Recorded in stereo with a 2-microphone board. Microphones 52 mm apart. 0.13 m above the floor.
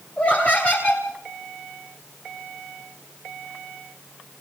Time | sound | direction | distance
0.2 | laughter | 25° left (ahead or behind) | 2 m